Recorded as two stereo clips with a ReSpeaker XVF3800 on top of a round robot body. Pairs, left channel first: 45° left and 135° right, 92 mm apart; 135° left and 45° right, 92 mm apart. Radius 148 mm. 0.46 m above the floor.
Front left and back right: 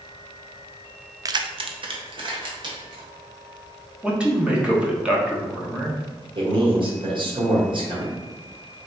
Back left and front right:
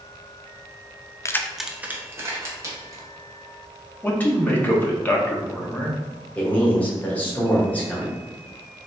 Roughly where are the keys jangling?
Behind.